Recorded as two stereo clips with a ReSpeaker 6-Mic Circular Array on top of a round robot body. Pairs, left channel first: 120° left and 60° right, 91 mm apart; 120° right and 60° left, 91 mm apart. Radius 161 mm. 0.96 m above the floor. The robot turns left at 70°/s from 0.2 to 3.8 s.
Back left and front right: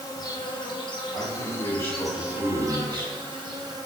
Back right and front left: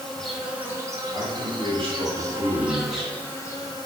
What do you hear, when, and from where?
0.0 s an insect: 155° left, 0.7 m; by 3.9 s 95° right, 0.7 m
1.1 s a man speaking: 100° left, 1.1 m; by 3.1 s 40° right, 1.1 m